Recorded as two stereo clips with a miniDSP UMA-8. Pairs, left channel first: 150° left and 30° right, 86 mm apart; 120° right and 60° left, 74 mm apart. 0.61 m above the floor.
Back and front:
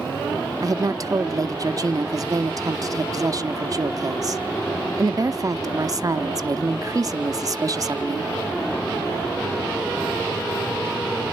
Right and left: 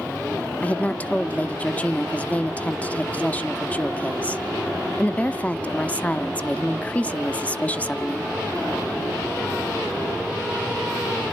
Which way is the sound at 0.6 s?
55° right.